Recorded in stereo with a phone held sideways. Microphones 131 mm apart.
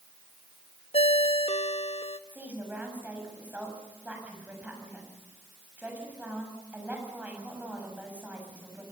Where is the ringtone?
50° left (ahead or behind), 0.8 m.